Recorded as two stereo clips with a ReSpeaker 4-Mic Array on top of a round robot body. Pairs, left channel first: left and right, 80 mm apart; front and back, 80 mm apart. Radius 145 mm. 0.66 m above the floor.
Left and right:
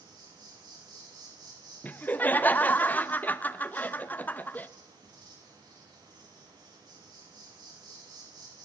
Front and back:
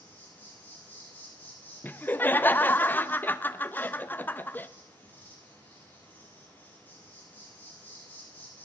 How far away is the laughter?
About 0.9 m.